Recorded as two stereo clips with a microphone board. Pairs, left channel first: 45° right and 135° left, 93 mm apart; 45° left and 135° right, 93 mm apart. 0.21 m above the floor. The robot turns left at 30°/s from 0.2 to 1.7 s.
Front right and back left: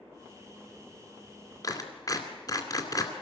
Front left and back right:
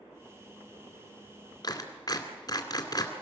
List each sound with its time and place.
1.6 s a clap: straight ahead, 2.5 m